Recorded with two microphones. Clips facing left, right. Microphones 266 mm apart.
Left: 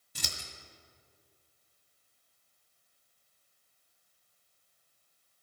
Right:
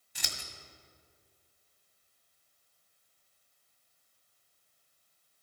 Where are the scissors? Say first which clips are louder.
Left 2 dB; 45° left (ahead or behind), 1.6 m.